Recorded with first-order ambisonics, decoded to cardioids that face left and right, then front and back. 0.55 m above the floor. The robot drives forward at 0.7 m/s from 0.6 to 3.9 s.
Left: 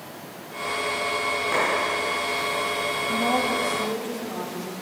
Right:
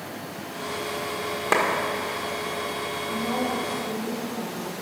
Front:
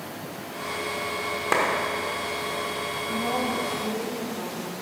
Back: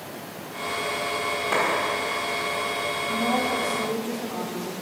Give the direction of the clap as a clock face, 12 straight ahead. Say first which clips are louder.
Right 4 dB, front 1 dB; 2 o'clock.